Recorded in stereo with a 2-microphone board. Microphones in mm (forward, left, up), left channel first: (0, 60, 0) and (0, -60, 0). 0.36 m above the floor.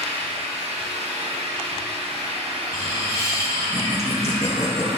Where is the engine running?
70° right (ahead or behind), 2 m.